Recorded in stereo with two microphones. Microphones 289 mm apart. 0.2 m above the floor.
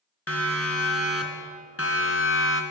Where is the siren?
60° left (ahead or behind), 3.5 m; by 2.6 s 50° left (ahead or behind), 2.5 m.